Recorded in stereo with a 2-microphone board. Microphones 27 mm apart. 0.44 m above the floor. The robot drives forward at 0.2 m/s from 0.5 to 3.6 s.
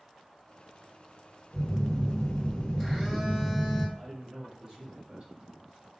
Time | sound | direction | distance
1.5 | a phone buzzing | centre (ahead or behind) | 1.9 m
4.0 | a man speaking | 40° right (ahead or behind) | 1.2 m